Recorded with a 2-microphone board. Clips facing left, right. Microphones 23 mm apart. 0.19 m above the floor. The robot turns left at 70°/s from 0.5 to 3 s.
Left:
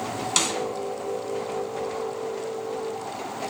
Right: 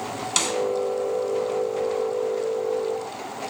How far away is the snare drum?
About 2 m.